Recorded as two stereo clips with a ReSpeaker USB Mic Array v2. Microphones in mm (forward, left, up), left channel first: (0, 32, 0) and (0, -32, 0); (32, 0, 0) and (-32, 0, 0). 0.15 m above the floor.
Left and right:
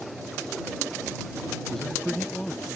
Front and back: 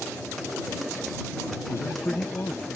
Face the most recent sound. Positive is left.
turn(degrees=15)